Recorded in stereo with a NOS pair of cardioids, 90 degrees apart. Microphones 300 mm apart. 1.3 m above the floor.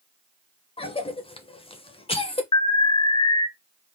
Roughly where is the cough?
Ahead.